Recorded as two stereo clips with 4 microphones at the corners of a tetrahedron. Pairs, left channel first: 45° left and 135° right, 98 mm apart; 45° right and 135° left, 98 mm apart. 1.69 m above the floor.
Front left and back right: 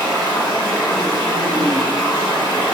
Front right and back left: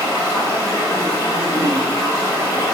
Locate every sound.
0.0 s running water: straight ahead, 2 m